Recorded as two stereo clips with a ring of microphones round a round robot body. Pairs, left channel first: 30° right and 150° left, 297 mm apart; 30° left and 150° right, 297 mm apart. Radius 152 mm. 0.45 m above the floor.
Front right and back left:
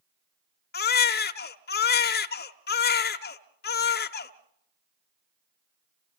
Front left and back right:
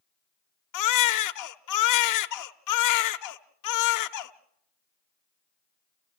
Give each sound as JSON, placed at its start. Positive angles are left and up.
{"t": 0.7, "sound": "a baby crying", "azimuth_deg": 25, "distance_m": 1.0}